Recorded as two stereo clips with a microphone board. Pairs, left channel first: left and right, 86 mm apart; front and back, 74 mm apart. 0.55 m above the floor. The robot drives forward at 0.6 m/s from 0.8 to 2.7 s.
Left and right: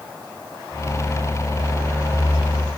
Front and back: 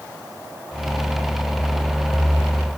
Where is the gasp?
No gasp in this recording.